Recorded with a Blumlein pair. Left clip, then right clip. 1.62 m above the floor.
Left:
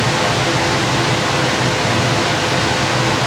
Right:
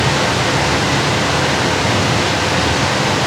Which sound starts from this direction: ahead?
A machine running, at 0.0 s.